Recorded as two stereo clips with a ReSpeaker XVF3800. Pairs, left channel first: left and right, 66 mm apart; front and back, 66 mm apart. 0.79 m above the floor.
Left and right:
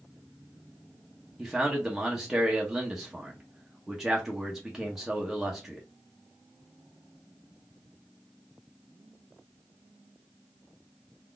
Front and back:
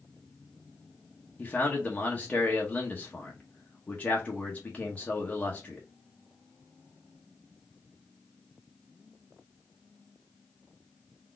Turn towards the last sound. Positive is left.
turn(degrees=-15)